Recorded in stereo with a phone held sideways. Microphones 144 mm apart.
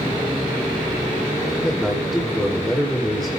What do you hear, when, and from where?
1.6 s a man speaking: 5° left (ahead or behind), 5 m